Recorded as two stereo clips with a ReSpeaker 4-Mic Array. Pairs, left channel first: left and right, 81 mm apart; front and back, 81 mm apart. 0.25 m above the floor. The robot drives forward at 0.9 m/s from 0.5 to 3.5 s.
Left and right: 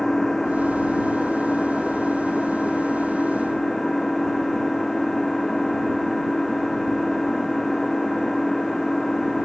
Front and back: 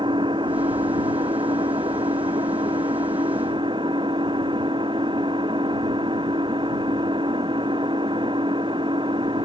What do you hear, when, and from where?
0.0 s an engine running: 175° left